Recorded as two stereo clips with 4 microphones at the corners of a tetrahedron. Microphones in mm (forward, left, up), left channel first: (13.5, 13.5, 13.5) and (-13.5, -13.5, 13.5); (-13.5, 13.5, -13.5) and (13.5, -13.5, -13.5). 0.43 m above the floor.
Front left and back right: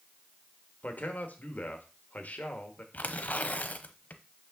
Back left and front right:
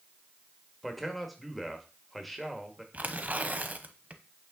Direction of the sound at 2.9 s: Straight ahead.